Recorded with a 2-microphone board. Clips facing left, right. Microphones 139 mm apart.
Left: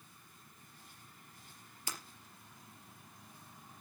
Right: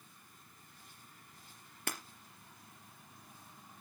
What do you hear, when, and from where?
1.9 s breaking glass: 70° right (ahead or behind), 3.5 m